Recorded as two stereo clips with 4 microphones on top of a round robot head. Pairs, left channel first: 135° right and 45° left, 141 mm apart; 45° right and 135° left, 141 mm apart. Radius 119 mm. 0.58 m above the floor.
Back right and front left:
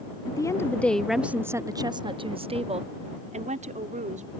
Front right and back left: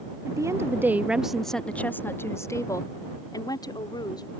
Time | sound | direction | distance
0.3 | a woman speaking | 175° right | ?